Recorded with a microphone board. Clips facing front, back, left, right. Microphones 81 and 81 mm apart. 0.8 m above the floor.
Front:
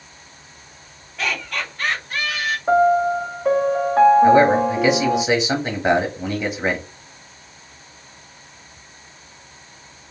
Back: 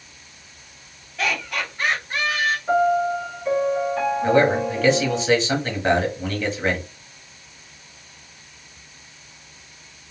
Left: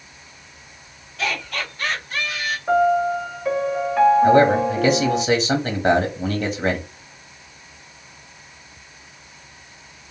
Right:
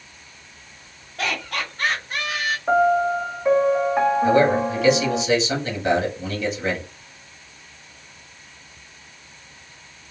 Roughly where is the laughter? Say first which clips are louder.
Back 1 dB, even; right.